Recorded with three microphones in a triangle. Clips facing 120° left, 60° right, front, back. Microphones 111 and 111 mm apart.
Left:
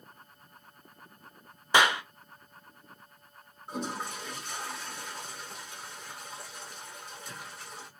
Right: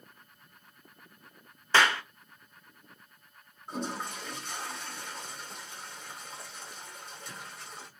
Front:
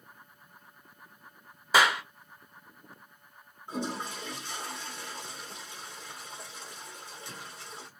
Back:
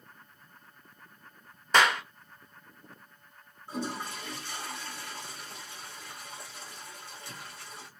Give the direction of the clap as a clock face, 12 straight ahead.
10 o'clock.